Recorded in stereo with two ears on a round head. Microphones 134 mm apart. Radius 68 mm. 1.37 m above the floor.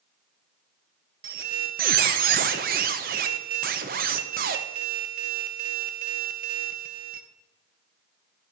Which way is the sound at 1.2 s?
60° right (ahead or behind).